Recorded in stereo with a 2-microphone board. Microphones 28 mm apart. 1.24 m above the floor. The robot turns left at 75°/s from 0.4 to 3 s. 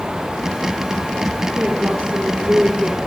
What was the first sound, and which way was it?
A woman speaking, 50° right.